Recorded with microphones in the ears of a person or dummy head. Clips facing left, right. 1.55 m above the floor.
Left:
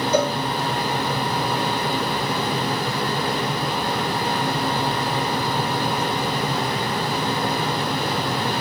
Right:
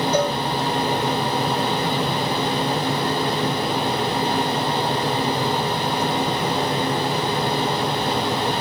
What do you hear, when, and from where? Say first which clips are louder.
0.1 s a cowbell: left 2 dB; 70° left (ahead or behind), 2.5 m